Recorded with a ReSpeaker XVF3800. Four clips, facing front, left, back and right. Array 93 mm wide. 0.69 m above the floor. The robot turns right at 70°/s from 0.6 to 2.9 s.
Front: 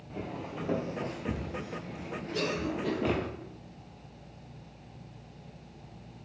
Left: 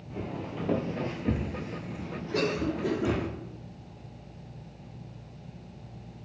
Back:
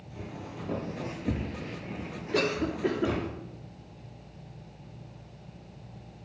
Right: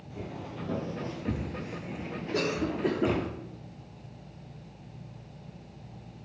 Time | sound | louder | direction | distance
0.1 | footsteps | left 4 dB, front 3 dB | 45° left | 1.4 m
2.3 | a cough | left 1 dB, back 4 dB | straight behind | 1.3 m